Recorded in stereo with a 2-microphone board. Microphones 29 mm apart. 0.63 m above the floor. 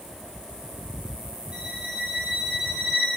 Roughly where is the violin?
Right.